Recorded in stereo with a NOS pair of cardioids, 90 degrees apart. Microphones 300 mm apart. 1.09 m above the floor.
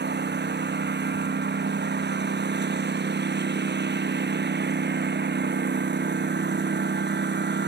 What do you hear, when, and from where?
0.0 s a lawn mower: 35° right